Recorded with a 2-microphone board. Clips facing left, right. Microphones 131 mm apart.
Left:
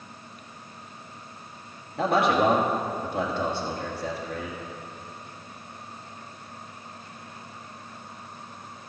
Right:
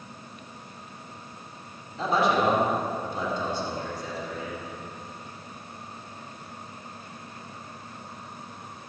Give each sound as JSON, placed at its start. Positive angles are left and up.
{"t": 2.0, "sound": "a man speaking", "side_deg": 60, "distance_m": 2.0}